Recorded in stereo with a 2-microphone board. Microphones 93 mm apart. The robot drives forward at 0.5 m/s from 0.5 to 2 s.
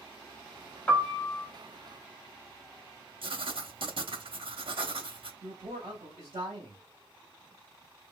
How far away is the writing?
About 0.5 m.